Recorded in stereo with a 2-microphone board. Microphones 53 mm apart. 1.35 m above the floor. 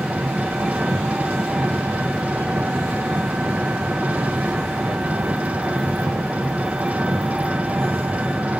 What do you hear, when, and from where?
0.0 s an engine running: 30° right (ahead or behind), 1.2 m